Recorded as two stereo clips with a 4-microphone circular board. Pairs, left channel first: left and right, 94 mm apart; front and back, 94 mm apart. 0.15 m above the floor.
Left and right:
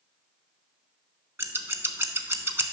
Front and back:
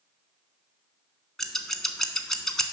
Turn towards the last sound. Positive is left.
turn(degrees=-80)